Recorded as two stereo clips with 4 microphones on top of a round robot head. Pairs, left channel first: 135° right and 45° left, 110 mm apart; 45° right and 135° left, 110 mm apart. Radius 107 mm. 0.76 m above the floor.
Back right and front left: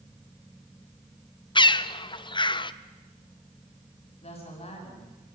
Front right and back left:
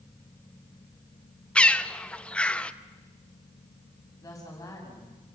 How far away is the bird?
About 0.9 m.